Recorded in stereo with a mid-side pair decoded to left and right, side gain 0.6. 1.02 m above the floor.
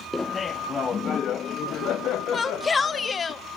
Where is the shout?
30° left, 1.3 m.